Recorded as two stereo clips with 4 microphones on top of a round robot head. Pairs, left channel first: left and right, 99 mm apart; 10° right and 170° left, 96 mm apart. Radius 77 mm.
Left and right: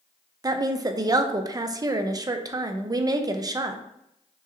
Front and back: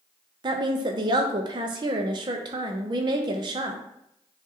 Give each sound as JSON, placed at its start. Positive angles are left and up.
{"t": 0.4, "sound": "a woman speaking", "azimuth_deg": -140, "distance_m": 0.6}